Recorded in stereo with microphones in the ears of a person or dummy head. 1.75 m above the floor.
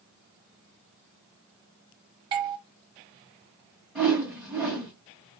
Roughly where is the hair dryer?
No hair dryer in this recording.